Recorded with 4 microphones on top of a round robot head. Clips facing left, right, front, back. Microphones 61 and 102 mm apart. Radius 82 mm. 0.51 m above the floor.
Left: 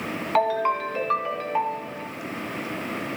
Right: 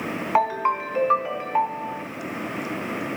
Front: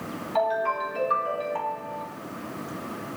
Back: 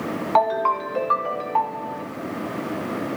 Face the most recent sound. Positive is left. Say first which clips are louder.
# even, back 5 dB
turn(degrees=-160)